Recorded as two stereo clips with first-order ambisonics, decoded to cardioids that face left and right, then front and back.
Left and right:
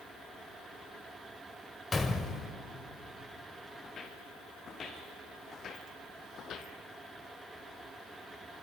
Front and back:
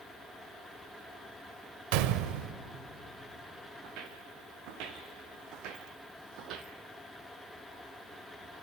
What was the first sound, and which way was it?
A gunshot, 170° left.